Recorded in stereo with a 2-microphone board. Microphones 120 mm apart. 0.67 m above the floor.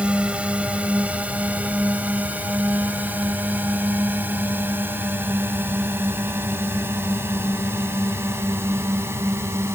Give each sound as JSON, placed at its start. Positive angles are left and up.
{"t": 0.0, "sound": "a drone", "side_deg": -10}